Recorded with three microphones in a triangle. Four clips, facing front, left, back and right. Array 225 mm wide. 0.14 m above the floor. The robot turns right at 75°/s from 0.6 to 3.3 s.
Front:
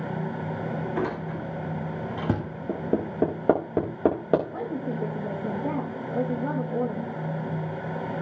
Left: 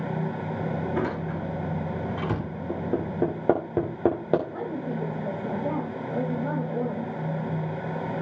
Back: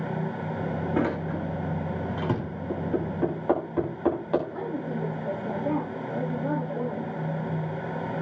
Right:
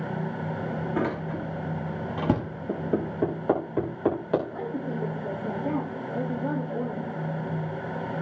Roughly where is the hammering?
Ahead.